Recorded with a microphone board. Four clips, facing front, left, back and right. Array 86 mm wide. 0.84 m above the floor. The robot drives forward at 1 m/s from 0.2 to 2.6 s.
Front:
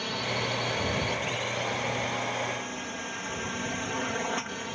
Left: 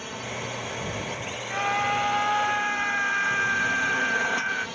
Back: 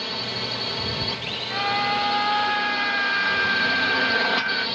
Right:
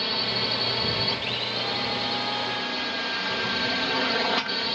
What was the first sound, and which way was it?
A drone, 110° right.